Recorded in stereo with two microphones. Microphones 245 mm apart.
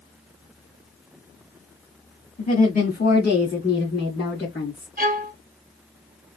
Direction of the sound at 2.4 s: 25° left (ahead or behind).